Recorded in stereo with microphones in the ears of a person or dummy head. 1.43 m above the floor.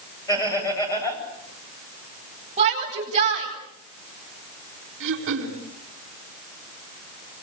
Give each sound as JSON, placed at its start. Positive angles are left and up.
{"t": 0.3, "sound": "laughter", "side_deg": 15, "distance_m": 9.0}
{"t": 2.6, "sound": "a shout", "side_deg": -30, "distance_m": 9.0}
{"t": 5.0, "sound": "throat clearing", "side_deg": -55, "distance_m": 4.0}